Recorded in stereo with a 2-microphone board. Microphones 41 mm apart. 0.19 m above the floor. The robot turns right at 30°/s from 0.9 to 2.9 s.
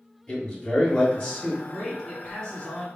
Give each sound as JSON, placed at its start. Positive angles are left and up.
{"t": 0.3, "sound": "a man speaking", "side_deg": 25, "distance_m": 1.6}
{"t": 1.6, "sound": "a man speaking", "azimuth_deg": 5, "distance_m": 1.8}